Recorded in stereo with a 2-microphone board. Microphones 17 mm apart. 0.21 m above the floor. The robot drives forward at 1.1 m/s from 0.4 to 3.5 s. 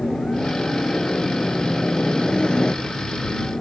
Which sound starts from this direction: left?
A helicopter, at 0.0 s.